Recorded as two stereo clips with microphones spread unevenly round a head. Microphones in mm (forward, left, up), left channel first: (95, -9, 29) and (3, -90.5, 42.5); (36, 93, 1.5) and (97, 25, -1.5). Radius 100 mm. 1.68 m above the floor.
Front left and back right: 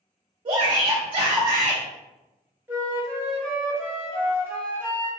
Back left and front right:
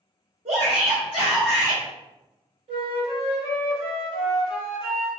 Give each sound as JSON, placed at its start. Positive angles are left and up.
{"t": 0.5, "sound": "a shout", "azimuth_deg": -90, "distance_m": 0.7}
{"t": 2.7, "sound": "a flute", "azimuth_deg": -70, "distance_m": 1.2}